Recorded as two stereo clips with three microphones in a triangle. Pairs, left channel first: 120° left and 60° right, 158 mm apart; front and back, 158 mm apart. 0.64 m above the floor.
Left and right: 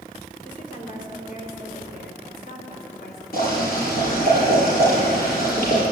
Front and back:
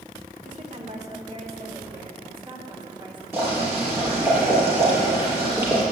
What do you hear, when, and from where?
0.5 s a woman speaking: 150° left, 2.5 m; by 4.3 s 115° left, 4 m
3.3 s boiling: 105° left, 7.5 m